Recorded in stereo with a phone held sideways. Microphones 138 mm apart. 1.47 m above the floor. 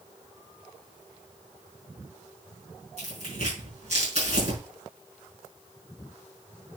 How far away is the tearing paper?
About 6 m.